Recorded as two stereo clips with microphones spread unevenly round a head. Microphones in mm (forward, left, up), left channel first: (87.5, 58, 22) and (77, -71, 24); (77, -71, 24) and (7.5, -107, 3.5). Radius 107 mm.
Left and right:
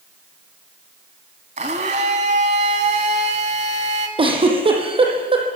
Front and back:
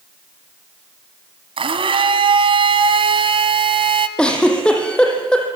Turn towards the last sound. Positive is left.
turn(degrees=-50)